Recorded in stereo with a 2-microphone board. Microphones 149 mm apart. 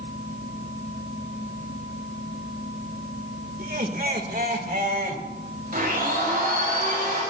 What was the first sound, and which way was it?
Laughter, 80° right.